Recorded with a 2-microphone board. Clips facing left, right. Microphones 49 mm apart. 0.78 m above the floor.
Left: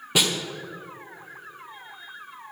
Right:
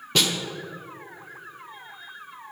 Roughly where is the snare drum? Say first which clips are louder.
Even; centre.